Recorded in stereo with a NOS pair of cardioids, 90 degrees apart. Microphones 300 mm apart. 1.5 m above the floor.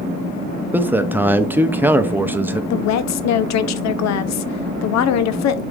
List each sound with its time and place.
0.7 s a man speaking: 5° right, 0.6 m
2.7 s a woman speaking: 65° left, 0.6 m